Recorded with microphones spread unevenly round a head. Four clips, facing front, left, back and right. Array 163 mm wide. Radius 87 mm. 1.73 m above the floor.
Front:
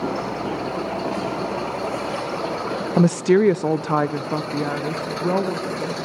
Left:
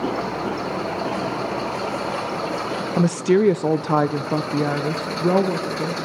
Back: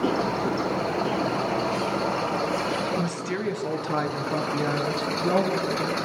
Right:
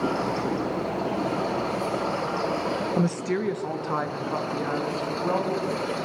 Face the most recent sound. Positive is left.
turn(degrees=80)